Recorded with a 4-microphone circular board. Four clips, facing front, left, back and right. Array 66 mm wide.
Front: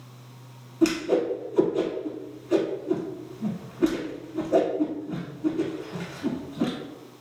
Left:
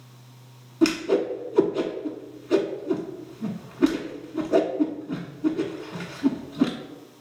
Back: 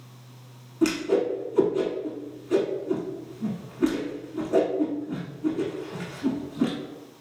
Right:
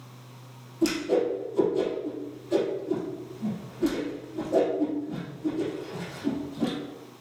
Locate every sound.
0.8 s a whoosh: 95° left, 1.0 m